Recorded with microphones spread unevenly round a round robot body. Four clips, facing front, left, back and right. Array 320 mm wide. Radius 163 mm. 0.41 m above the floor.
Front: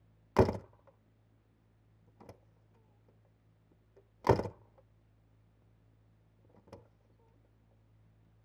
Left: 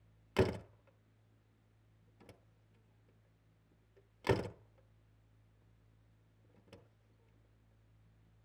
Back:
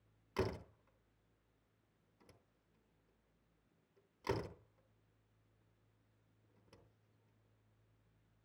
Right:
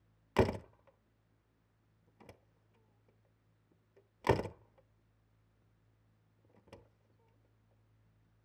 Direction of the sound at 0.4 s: 10° right.